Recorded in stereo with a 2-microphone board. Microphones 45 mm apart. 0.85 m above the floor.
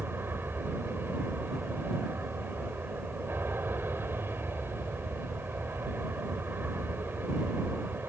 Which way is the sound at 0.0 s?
55° right (ahead or behind).